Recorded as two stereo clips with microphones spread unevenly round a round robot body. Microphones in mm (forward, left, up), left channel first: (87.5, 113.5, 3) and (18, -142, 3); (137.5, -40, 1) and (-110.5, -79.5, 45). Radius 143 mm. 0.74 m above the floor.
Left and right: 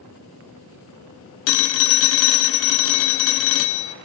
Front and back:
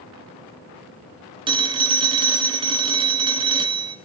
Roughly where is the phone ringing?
Behind left.